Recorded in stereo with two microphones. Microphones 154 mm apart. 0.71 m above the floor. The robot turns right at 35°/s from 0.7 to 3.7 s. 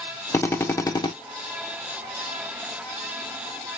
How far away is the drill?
About 0.6 m.